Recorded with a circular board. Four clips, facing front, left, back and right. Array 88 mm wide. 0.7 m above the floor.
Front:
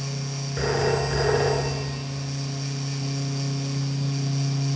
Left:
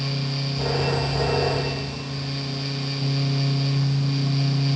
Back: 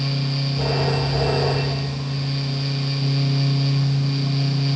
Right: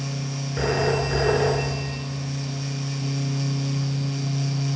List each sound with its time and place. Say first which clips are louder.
0.6 s a phone ringing: right 3 dB, front 1 dB; 55° right, 6 m